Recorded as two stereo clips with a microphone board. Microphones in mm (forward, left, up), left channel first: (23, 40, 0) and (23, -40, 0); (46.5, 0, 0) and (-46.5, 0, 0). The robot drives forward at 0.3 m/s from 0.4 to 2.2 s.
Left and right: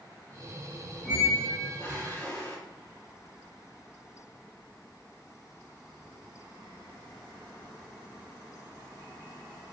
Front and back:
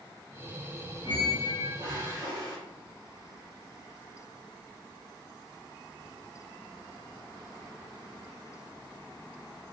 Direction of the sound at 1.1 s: 145° left.